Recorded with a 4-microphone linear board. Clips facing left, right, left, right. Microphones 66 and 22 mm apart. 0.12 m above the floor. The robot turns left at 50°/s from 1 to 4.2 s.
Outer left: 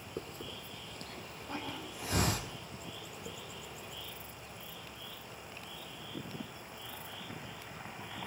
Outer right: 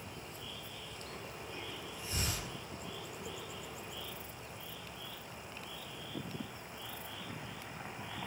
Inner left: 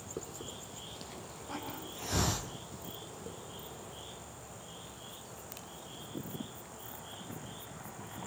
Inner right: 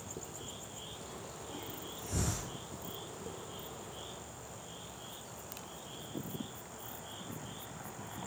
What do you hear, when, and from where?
0.2 s a hiss: 55° left (ahead or behind), 1.5 m; by 3.4 s 5° left (ahead or behind), 1.5 m